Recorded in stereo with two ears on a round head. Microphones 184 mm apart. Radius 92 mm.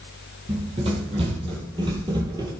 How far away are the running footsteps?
About 3.5 m.